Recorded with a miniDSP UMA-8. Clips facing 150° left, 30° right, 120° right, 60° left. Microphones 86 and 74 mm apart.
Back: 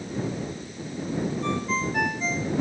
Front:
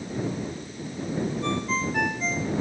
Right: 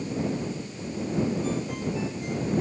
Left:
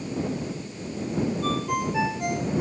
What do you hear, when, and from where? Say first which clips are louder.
1.4 s a ringtone: even, left 3 dB; 65° left